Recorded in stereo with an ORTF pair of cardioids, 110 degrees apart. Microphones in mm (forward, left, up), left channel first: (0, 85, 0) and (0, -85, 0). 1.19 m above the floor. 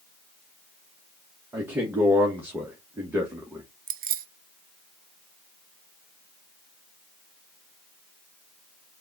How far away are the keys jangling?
About 0.6 m.